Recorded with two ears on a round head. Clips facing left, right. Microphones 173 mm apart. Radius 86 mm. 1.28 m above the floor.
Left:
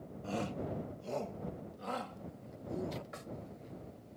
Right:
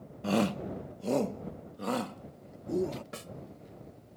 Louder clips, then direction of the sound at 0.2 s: Right 9 dB; 75° right (ahead or behind).